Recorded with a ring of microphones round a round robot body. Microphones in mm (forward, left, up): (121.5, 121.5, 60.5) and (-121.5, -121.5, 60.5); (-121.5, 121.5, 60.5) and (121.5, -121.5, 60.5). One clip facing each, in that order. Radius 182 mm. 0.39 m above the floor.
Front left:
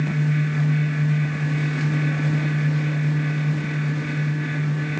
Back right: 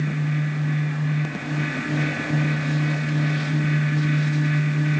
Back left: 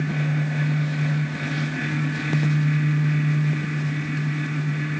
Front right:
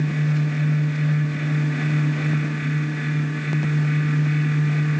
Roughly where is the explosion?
I don't hear an explosion.